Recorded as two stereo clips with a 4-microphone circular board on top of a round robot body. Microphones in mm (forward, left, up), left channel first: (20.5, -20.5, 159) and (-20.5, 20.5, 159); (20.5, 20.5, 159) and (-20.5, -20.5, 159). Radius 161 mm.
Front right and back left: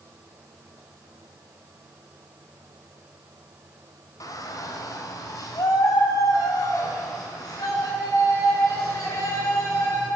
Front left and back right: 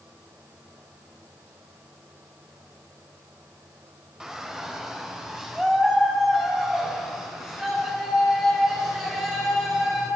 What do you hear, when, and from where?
4.2 s a shout: 55° right, 3.5 m